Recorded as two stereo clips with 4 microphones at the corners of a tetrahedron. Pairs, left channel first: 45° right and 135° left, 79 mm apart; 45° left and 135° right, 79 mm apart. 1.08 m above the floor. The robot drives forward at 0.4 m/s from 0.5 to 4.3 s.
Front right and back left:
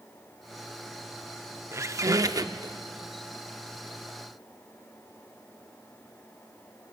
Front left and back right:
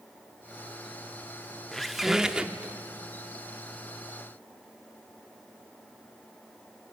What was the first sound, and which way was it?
A squeak, 125° left.